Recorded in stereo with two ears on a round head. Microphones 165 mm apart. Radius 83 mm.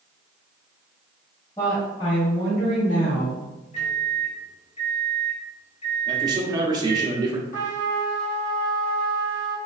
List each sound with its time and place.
1.6 s a woman speaking: 15° left (ahead or behind), 1.9 m; by 3.5 s 60° left (ahead or behind), 1.8 m
3.7 s a microwave: 35° left (ahead or behind), 1.3 m
6.1 s a man speaking: 25° right (ahead or behind), 0.8 m
7.5 s a trumpet: 45° left (ahead or behind), 1.8 m